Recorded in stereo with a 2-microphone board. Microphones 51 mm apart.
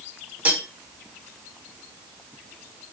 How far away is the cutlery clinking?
About 1.0 m.